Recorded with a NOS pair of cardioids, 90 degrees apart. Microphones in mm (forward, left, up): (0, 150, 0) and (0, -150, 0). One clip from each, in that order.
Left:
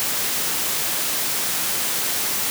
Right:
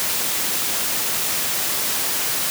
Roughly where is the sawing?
I don't hear sawing.